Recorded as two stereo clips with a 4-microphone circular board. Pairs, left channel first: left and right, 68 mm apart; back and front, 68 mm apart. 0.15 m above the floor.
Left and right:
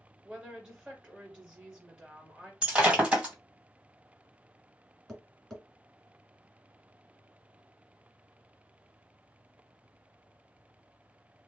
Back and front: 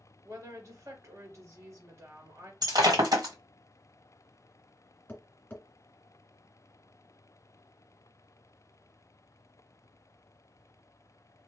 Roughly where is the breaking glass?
Ahead.